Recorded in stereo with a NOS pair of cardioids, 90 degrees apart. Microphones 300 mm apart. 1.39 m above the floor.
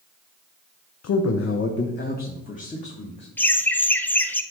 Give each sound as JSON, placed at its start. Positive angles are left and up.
{"t": 1.0, "sound": "a man speaking", "azimuth_deg": 60, "distance_m": 1.0}
{"t": 3.4, "sound": "laughter", "azimuth_deg": 5, "distance_m": 1.1}